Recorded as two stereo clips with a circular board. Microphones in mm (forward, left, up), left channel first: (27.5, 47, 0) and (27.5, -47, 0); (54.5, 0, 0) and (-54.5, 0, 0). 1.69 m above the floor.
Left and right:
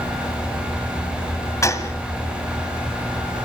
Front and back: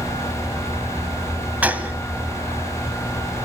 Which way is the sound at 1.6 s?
115° left.